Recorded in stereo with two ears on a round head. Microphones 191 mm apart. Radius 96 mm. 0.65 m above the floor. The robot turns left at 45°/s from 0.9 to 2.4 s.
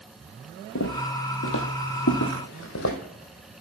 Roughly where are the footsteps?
Left.